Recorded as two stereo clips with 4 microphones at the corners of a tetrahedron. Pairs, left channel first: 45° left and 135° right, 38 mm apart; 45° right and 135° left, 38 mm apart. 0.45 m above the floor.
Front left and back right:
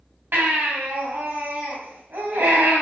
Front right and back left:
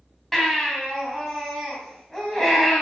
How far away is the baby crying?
About 2.5 m.